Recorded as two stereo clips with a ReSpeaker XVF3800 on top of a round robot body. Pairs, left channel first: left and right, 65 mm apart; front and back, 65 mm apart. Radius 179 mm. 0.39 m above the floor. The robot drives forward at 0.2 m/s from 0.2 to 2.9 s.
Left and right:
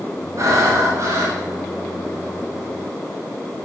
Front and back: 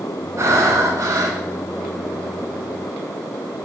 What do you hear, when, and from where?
0.4 s breathing: 135° right, 1.0 m; by 1.4 s 140° right, 1.2 m